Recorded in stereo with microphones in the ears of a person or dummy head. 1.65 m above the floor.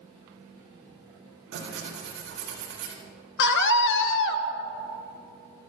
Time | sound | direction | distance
1.5 | tearing paper | 70° right (ahead or behind) | 3.5 m
3.4 | a scream | 70° left (ahead or behind) | 1.3 m